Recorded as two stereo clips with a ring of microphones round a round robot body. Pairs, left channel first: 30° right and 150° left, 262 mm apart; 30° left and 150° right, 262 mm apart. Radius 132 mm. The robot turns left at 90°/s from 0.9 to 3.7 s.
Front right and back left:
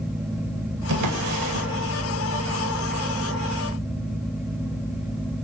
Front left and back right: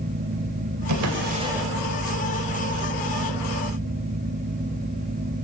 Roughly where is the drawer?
Behind.